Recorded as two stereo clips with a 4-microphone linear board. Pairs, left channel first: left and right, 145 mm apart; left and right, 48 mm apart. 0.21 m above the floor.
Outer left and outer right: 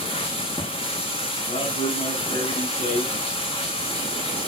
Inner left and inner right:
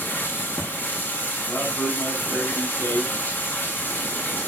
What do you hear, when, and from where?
0.0 s running water: 40° left (ahead or behind), 4 m
1.5 s a man speaking: 55° left (ahead or behind), 7 m